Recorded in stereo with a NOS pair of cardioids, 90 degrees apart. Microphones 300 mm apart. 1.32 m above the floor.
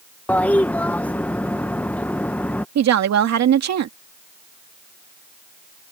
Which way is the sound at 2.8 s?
60° right.